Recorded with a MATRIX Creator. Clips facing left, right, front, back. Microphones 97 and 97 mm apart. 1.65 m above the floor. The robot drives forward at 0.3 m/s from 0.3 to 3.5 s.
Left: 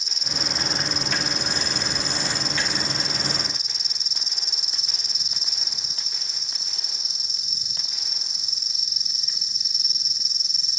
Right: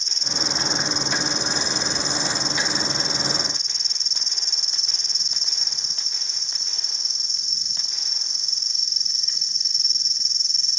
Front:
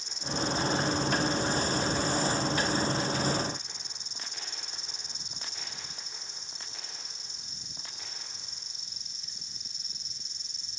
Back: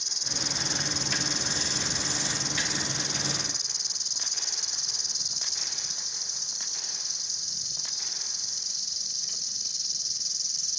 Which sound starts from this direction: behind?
An insect, at 0.0 s.